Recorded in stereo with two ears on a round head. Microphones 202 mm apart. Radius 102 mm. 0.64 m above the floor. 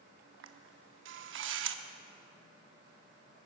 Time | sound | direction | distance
0.4 | a camera shutter | 60° right (ahead or behind) | 0.9 m